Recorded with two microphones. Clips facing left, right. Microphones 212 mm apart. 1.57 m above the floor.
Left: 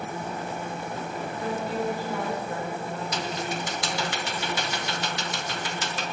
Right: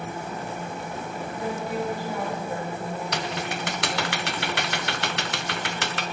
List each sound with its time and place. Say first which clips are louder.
1.3 s a woman speaking: right 1 dB; 15° right (ahead or behind), 5.5 m
3.1 s typing on a keyboard: even; 70° right (ahead or behind), 0.8 m